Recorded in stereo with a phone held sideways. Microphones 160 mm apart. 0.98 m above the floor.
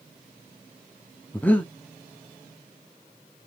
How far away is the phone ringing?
No phone ringing in this recording.